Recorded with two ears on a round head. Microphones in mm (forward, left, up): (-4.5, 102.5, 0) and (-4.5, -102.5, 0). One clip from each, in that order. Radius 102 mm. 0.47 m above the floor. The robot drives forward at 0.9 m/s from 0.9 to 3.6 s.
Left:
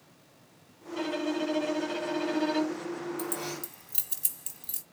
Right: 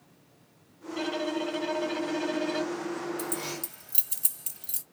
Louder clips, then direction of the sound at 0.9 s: Right 1 dB; 5° left (ahead or behind).